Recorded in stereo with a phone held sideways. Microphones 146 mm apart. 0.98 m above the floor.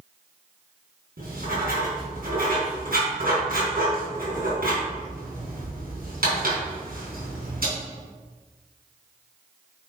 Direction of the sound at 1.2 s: 85° right.